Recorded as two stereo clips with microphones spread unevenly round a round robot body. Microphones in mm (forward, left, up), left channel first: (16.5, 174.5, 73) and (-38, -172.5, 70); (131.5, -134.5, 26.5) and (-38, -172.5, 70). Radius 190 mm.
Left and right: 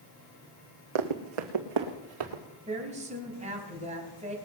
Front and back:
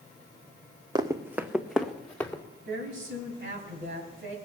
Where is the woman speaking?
170° right, 3 m.